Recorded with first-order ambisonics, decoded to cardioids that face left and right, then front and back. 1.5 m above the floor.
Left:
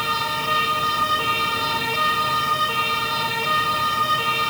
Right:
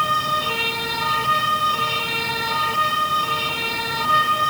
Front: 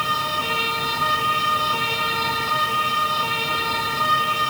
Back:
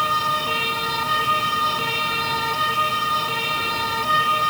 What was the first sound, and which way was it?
Only background noise.